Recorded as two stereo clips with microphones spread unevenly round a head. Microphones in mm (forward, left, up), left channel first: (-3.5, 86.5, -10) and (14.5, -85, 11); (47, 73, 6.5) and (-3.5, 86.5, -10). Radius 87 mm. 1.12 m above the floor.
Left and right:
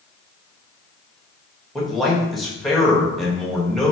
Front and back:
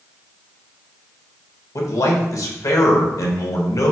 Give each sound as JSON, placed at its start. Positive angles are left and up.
{"t": 1.8, "sound": "a man speaking", "azimuth_deg": 10, "distance_m": 1.2}